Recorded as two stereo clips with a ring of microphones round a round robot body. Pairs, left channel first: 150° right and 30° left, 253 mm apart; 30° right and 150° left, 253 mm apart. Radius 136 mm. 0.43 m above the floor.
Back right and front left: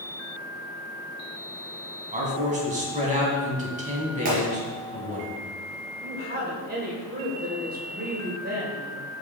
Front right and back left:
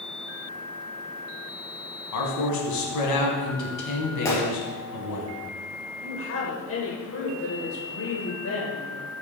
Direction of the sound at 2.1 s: 30° right.